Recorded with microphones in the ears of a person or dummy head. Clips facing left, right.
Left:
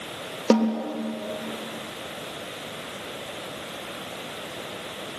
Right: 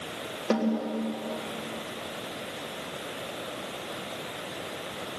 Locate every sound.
0.5 s a snare drum: 70° left (ahead or behind), 3 m